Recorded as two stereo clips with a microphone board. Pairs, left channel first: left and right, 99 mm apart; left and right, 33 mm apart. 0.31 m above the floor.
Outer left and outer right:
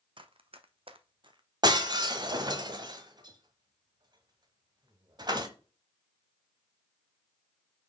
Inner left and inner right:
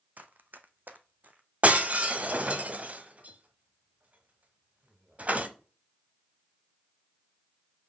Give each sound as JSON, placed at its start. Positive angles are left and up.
{"t": 0.2, "sound": "running footsteps", "side_deg": -55, "distance_m": 0.9}
{"t": 1.6, "sound": "breaking glass", "side_deg": -45, "distance_m": 1.2}